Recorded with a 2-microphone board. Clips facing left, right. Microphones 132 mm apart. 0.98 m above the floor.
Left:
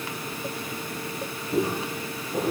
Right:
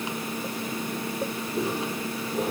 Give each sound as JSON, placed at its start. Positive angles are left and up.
{"t": 1.5, "sound": "footsteps", "side_deg": 75, "distance_m": 5.5}